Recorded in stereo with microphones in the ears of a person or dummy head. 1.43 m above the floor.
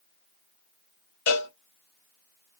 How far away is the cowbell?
About 1.4 m.